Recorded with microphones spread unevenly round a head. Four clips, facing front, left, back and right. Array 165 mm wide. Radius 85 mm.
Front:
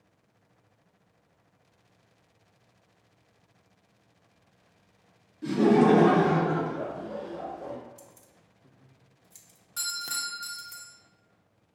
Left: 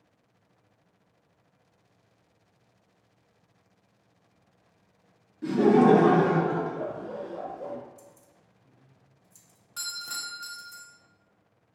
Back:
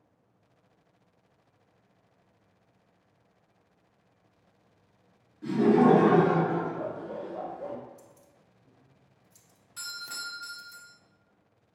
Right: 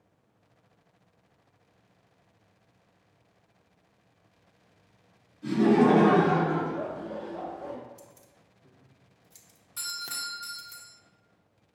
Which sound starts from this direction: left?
Laughter, at 5.4 s.